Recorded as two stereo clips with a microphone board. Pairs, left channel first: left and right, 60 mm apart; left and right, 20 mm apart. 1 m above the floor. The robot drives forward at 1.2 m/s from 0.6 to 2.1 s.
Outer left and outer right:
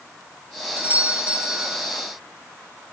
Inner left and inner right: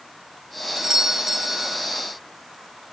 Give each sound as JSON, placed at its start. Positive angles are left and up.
{"t": 0.8, "sound": "a doorbell", "side_deg": -30, "distance_m": 2.5}